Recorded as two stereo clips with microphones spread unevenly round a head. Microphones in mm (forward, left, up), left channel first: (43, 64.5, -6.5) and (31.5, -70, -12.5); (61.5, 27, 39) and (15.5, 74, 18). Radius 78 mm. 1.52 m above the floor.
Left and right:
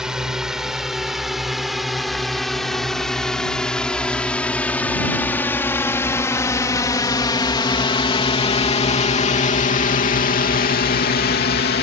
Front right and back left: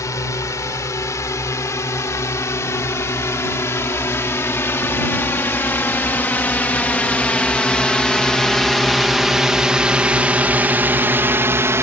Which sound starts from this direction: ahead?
A drone, at 0.0 s.